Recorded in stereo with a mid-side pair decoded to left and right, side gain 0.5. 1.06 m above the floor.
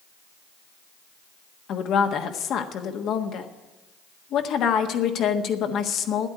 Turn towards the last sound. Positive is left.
turn(degrees=65)